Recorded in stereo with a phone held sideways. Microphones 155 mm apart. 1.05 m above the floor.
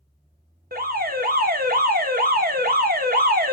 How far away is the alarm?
About 0.6 m.